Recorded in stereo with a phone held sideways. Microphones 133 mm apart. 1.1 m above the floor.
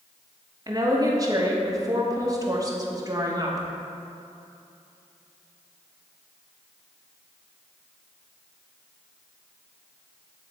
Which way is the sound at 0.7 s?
30° right (ahead or behind).